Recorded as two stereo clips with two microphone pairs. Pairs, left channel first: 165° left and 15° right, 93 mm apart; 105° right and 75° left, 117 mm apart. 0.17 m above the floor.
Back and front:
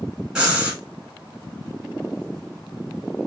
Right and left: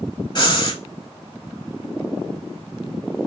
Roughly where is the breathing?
Right.